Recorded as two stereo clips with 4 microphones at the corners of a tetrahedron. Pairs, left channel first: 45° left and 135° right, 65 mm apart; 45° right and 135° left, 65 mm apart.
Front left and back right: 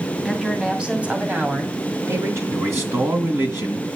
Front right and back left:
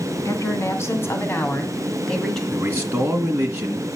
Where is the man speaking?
175° right, 2 m.